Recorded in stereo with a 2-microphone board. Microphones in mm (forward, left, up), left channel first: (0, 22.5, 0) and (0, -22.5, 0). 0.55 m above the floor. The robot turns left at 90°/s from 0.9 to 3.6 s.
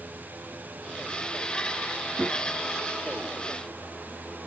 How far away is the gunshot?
About 5 m.